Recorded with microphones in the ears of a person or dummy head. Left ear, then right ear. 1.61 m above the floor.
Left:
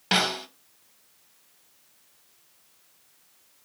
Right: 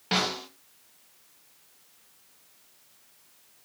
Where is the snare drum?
30° left (ahead or behind), 1.0 m.